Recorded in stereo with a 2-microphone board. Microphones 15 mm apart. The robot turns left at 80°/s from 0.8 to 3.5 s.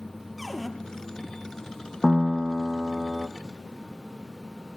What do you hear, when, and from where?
0.4 s a cupboard door: centre (ahead or behind), 3 m
2.0 s a piano: 5° left, 1.1 m; by 3.3 s 95° right, 1.1 m